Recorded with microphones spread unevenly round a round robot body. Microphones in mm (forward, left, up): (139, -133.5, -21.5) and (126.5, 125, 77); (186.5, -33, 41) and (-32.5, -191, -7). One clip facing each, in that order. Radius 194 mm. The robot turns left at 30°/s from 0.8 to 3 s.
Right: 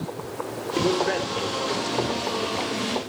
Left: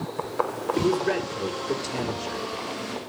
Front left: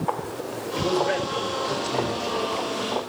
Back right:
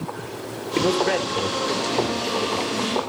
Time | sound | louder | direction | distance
0.8 | a man speaking | even, back right 3 dB | 160° right | 2.5 m